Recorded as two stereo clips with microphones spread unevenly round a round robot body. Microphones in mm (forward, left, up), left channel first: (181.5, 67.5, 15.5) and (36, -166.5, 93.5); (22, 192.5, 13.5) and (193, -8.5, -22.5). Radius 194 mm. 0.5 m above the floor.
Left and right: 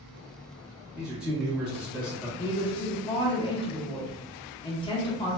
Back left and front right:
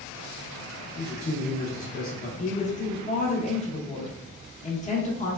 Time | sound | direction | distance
0.9 | a man speaking | 115° left | 0.7 m
2.4 | a woman speaking | 75° left | 0.7 m